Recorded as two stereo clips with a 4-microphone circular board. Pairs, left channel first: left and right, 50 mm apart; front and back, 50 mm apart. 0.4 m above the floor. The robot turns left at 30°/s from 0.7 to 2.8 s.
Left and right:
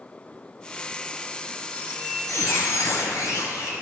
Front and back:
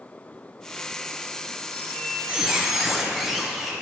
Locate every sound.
1.7 s a squeak: 125° left, 1.1 m; by 3.7 s 95° left, 1.1 m